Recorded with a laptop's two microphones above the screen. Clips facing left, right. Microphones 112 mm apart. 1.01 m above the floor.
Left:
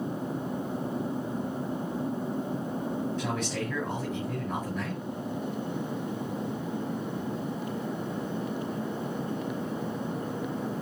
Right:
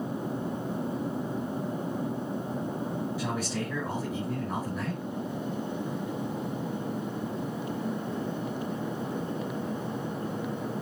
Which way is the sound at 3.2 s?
5° right (ahead or behind).